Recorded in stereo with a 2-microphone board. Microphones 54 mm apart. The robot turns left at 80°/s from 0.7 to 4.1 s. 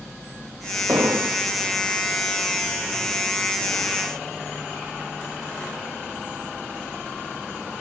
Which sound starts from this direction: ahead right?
An explosion, at 0.9 s.